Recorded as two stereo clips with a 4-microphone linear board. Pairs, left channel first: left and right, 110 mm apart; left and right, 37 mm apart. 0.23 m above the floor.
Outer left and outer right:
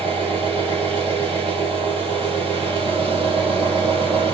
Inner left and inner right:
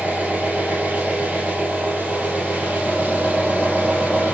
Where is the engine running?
50° right (ahead or behind), 7 m.